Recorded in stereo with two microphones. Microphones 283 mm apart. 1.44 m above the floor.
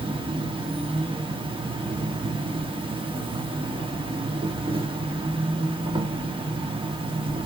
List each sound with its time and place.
0.0 s an insect: 20° right (ahead or behind), 0.8 m